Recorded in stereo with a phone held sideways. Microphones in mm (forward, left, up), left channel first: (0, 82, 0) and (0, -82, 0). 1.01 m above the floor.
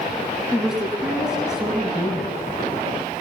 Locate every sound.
0.5 s a woman speaking: 5° right (ahead or behind), 9.5 m